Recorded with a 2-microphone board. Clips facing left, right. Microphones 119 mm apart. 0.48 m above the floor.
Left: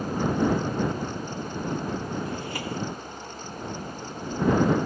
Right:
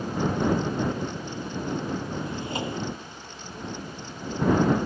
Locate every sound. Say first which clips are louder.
2.2 s a drawer: right 1 dB; 20° right (ahead or behind)